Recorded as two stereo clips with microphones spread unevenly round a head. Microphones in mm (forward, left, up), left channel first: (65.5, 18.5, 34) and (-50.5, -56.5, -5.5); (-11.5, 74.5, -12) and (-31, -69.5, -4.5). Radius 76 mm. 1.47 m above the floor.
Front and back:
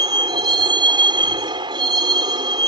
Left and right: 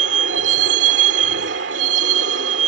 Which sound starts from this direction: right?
A vehicle, at 0.0 s.